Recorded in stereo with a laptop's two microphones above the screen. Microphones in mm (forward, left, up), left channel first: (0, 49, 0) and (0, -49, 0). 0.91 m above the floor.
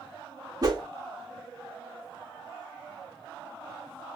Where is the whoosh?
40° right (ahead or behind), 0.9 m.